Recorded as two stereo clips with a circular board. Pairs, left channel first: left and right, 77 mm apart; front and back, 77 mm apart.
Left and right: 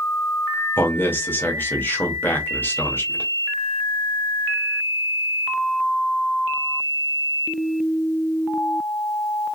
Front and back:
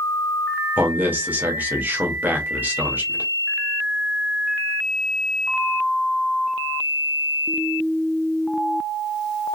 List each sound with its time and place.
0.8 s a man speaking: 130° left, 0.9 m